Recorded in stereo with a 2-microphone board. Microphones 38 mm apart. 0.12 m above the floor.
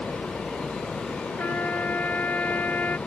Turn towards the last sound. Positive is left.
turn(degrees=50)  # may be behind; listen again after turning